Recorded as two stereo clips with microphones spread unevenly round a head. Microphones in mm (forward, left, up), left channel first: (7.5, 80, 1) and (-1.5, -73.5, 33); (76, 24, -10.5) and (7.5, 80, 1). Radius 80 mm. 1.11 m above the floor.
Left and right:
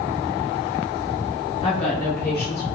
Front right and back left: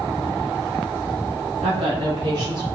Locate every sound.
1.6 s a woman speaking: 130° left, 0.8 m; by 2.8 s 90° left, 1.5 m